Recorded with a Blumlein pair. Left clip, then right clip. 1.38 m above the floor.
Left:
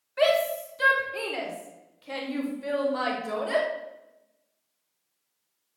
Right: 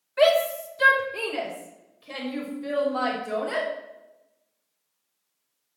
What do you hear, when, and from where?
0.2 s a shout: 5° right, 3 m; by 3.7 s 30° left, 5.5 m